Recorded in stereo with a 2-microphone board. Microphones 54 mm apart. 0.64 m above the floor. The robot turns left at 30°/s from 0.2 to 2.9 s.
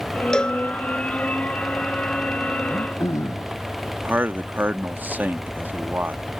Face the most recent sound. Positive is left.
turn(degrees=-35)  # may be behind; listen again after turning